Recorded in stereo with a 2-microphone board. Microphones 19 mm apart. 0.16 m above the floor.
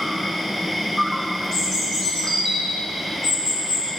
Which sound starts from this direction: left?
A bird, at 1.5 s.